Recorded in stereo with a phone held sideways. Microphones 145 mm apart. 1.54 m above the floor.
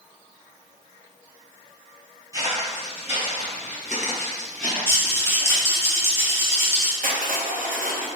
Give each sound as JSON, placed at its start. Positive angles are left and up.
{"t": 2.3, "sound": "footsteps", "side_deg": -25, "distance_m": 1.7}
{"t": 4.9, "sound": "a rattle", "side_deg": 15, "distance_m": 0.9}
{"t": 7.0, "sound": "crushing", "side_deg": -70, "distance_m": 0.5}